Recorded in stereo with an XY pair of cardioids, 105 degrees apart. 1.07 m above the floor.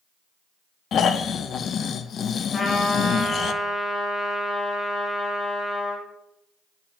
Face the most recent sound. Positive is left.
turn(degrees=30)